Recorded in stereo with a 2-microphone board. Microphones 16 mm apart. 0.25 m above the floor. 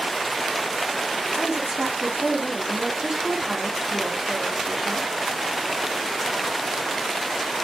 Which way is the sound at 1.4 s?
55° right (ahead or behind).